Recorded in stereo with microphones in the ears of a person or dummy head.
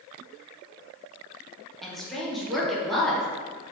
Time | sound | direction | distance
1.8 | a woman speaking | 10° left (ahead or behind) | 0.9 m